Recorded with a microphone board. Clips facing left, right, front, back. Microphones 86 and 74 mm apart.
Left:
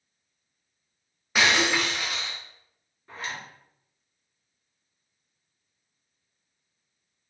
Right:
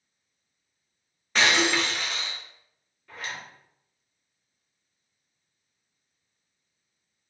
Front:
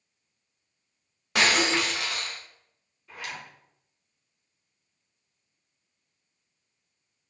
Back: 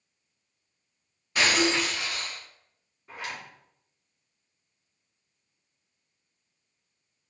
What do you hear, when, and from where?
1.4 s breaking glass: 10° left, 0.6 m
3.1 s a zipper: 140° left, 1.4 m